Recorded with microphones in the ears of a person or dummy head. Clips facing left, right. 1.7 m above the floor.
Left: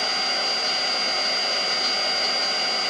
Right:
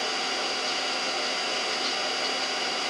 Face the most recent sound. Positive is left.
turn(degrees=45)  # may be behind; listen again after turning